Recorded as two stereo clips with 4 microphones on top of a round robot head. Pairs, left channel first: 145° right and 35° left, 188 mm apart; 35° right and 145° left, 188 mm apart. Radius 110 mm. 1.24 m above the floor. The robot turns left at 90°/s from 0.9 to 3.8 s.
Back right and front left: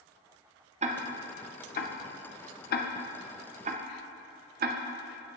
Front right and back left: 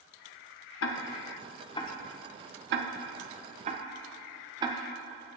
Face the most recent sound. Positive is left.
turn(degrees=75)